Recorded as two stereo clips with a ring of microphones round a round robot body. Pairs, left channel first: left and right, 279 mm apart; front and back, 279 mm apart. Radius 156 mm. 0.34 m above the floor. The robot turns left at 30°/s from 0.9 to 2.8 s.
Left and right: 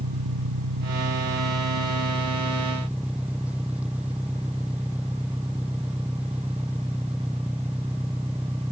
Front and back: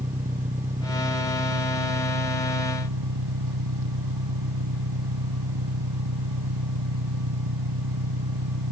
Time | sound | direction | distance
0.0 | an engine running | 120° right | ?